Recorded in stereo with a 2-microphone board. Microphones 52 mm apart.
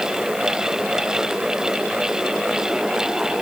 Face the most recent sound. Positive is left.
No sound to turn to.